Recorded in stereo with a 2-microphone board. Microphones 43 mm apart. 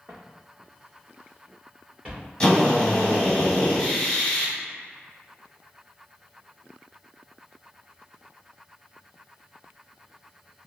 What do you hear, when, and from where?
0.1 s footsteps: 55° right (ahead or behind), 1.2 m; by 2.3 s 15° right (ahead or behind), 3 m
2.4 s a drill: 15° left (ahead or behind), 1.5 m